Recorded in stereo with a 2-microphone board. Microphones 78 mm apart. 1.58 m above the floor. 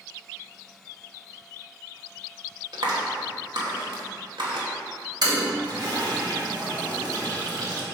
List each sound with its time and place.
2.7 s a clap: 75° right (ahead or behind), 2.5 m
5.2 s a toilet flushing: 60° right (ahead or behind), 2.5 m